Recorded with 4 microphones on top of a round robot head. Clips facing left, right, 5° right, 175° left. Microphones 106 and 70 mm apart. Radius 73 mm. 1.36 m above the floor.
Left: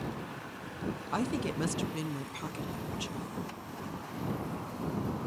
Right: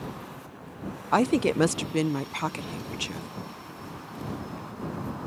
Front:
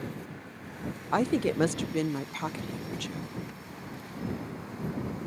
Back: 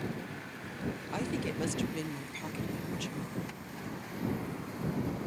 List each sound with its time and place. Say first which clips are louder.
1.1 s a woman speaking: right 12 dB, front 11 dB; 55° right